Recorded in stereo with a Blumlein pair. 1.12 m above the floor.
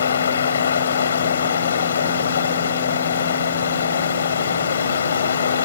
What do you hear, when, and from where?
0.0 s running water: 70° left